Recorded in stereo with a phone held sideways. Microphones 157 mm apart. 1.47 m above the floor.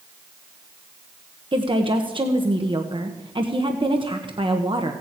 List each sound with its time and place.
1.5 s a woman speaking: 30° right (ahead or behind), 1.1 m